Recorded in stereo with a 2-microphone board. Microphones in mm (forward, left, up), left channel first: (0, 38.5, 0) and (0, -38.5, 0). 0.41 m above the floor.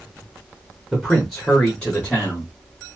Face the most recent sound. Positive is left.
turn(degrees=20)  # may be behind; listen again after turning